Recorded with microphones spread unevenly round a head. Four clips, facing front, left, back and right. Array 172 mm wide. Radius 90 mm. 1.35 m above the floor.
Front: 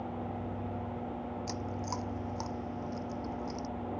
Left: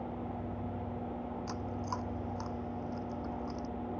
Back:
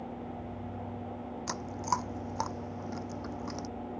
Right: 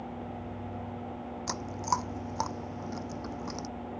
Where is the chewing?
140° right.